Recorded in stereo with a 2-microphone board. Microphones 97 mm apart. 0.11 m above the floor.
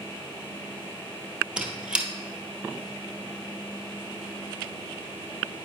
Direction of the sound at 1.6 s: 10° right (ahead or behind).